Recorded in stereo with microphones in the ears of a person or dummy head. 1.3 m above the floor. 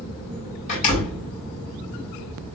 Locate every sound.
0.7 s a door slam: 45° left (ahead or behind), 5.5 m